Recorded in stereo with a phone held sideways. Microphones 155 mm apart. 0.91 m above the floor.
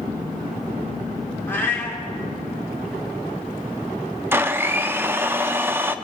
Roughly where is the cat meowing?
Centre.